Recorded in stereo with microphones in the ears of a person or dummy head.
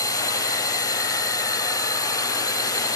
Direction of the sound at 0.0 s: 15° left (ahead or behind).